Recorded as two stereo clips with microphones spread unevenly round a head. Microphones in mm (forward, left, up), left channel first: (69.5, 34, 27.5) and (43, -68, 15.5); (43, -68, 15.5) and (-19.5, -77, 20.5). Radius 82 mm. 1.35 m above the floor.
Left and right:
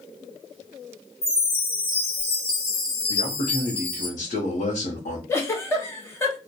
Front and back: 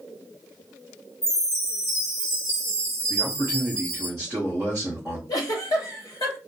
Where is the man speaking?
85° left, 0.7 m.